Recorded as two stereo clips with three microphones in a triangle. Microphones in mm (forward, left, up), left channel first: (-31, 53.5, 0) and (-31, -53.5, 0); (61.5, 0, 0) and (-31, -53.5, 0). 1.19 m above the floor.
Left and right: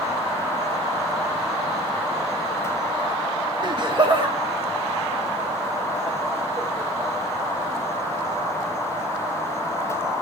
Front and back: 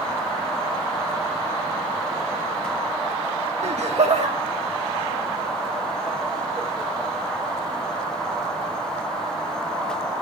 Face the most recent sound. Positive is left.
turn(degrees=-135)